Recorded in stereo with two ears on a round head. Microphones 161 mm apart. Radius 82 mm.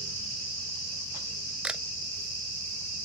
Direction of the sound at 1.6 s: 5° right (ahead or behind).